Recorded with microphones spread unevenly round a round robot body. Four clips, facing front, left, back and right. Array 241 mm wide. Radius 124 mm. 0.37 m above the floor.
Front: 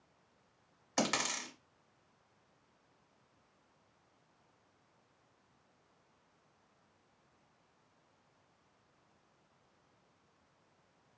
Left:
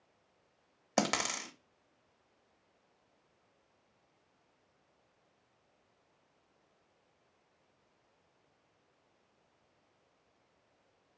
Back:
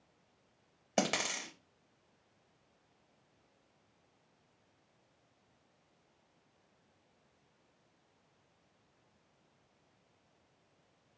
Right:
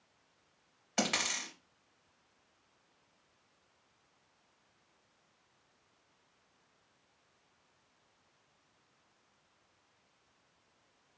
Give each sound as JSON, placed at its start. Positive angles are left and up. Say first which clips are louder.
{"t": 1.0, "sound": "a dropped coin", "louder": "left 3 dB, back 1 dB", "azimuth_deg": 130, "distance_m": 0.8}